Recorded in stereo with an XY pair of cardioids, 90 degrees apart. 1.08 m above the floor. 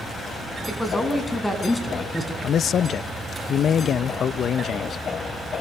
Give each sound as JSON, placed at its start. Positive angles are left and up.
{"t": 0.7, "sound": "a man speaking", "azimuth_deg": 5, "distance_m": 8.0}
{"t": 2.4, "sound": "a man speaking", "azimuth_deg": 60, "distance_m": 0.7}